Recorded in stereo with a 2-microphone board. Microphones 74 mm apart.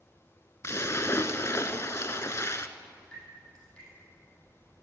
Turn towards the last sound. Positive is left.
turn(degrees=10)  # may be behind; listen again after turning